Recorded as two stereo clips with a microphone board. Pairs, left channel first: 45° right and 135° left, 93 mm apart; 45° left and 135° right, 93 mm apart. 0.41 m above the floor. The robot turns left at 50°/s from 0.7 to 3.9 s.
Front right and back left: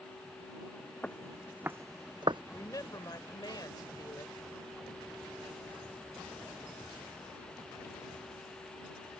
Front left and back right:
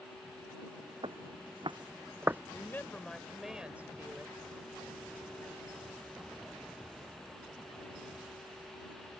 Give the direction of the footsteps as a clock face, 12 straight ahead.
4 o'clock.